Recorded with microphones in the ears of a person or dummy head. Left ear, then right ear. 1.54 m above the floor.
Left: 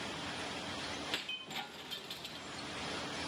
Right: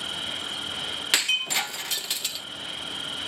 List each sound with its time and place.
0.0 s an insect: 65° right (ahead or behind)
1.1 s breaking glass: 40° right (ahead or behind)